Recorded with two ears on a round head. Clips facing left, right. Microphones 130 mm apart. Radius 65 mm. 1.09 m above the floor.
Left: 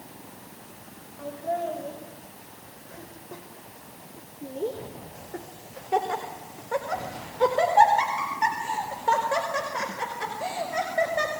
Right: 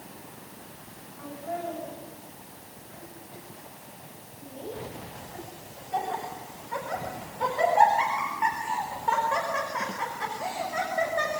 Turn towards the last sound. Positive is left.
turn(degrees=25)  # may be behind; listen again after turning